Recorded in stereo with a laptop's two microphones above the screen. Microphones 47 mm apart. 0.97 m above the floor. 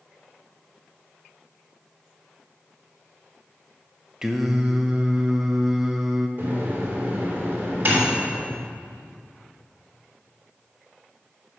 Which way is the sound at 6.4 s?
40° right (ahead or behind).